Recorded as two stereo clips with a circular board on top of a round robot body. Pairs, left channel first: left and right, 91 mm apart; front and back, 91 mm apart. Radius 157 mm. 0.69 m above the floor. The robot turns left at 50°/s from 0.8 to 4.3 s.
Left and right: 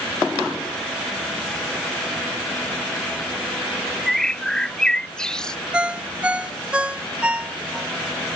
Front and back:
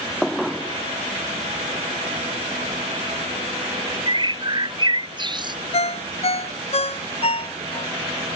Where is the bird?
Straight behind; by 5.6 s 170° left.